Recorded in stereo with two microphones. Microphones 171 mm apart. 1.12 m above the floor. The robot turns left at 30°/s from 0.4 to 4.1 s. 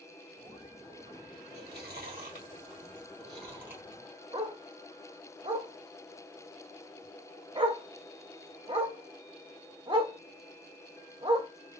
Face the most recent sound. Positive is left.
turn(degrees=-30)  # may be behind; listen again after turning